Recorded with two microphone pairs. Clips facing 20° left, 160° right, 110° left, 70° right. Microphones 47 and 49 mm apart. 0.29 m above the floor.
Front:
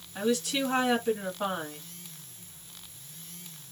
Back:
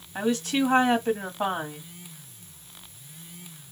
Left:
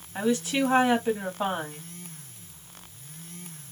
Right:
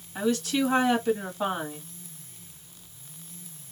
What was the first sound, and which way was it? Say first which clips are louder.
A woman speaking: back 3 dB, even; 170° left.